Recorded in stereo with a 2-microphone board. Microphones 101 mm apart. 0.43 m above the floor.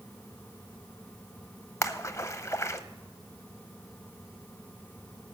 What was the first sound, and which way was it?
A splash, 30° left (ahead or behind).